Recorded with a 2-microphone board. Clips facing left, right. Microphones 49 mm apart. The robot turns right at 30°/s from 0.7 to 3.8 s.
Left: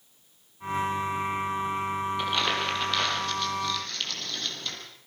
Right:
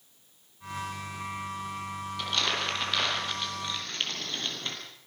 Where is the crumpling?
20° left (ahead or behind), 5 m; by 4.8 s 30° right (ahead or behind), 5 m.